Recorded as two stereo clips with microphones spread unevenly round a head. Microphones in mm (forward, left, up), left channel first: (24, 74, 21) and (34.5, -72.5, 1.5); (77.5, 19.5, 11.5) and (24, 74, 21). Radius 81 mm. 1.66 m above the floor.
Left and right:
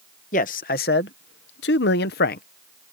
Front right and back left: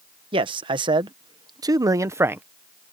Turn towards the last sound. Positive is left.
turn(degrees=70)